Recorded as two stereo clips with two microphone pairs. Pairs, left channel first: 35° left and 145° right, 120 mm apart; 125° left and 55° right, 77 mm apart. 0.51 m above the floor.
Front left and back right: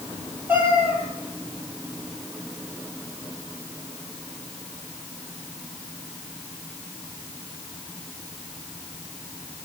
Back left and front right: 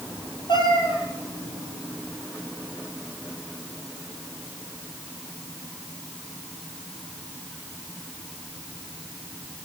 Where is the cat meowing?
140° left, 8.5 m.